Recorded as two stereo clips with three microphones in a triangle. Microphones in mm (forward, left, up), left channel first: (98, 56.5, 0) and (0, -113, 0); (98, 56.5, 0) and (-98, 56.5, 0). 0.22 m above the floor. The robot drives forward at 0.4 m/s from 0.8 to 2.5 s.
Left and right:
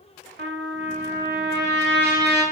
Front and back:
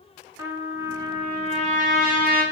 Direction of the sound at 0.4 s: 105° right.